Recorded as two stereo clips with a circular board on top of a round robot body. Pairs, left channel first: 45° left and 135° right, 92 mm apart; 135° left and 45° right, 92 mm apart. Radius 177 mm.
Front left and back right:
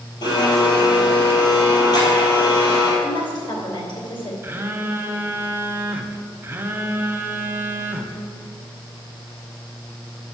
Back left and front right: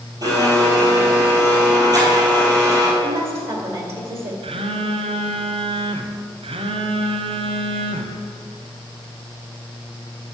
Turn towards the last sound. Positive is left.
turn(degrees=-65)